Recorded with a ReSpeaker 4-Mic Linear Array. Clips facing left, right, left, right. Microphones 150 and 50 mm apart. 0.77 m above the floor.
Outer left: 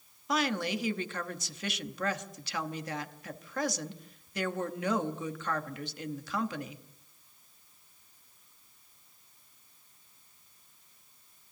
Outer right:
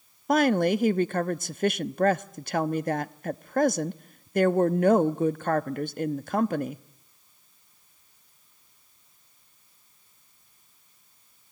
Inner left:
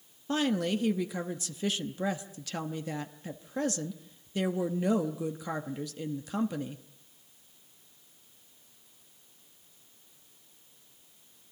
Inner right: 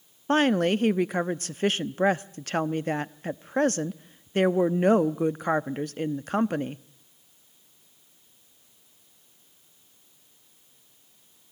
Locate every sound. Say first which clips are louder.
0.3 s a woman speaking: outer right 10 dB, inner right 7 dB; 50° right (ahead or behind), 0.8 m